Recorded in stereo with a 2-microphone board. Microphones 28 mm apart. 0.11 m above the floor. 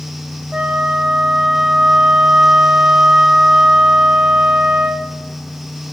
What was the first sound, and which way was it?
A flute, 30° right (ahead or behind).